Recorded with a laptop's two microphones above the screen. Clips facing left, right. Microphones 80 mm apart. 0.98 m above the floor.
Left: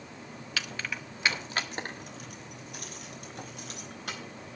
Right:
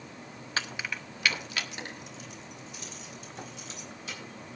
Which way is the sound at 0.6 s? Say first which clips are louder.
Right 2 dB; 35° right (ahead or behind).